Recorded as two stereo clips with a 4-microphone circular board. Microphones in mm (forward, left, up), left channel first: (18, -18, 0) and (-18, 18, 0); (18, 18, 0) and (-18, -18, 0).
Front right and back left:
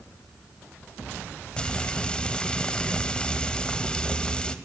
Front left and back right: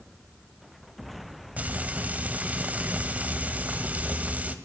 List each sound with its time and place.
1.6 s frying: 105° right, 1.6 m